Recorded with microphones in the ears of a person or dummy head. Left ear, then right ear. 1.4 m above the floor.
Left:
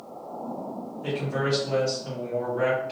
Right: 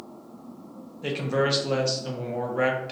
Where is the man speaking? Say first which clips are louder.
Right 3 dB; 40° right (ahead or behind), 0.6 m.